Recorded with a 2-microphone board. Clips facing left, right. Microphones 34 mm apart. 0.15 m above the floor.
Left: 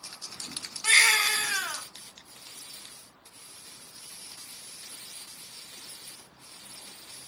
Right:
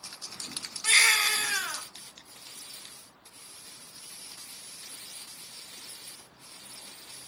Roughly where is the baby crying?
Centre.